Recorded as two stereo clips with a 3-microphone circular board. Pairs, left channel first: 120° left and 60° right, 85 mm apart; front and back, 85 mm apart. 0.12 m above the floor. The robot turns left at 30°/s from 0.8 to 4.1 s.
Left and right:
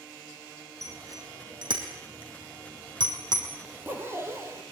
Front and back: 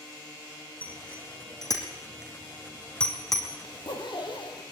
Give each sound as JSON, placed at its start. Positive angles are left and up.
{"t": 0.8, "sound": "a bicycle bell", "azimuth_deg": -10, "distance_m": 4.5}
{"t": 3.6, "sound": "a zipper", "azimuth_deg": 10, "distance_m": 3.5}